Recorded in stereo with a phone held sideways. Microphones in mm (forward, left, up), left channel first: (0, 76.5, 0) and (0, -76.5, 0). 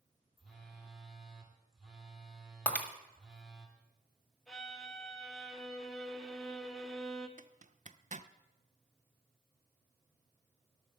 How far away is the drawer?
No drawer in this recording.